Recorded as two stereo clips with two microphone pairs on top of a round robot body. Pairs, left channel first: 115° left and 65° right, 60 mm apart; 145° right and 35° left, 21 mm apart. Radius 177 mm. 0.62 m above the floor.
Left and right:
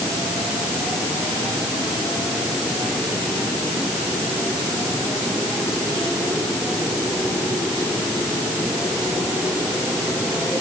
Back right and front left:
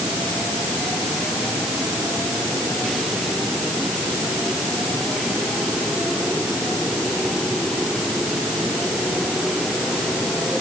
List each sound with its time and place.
Only background noise.